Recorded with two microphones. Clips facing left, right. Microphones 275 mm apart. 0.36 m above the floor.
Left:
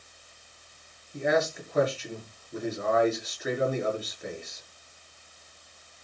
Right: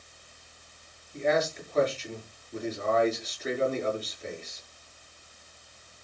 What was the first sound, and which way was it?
A man speaking, 10° left (ahead or behind).